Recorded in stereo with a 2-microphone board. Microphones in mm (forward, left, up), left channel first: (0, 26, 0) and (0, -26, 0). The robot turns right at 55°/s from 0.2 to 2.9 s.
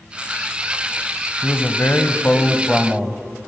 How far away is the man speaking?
About 1.5 m.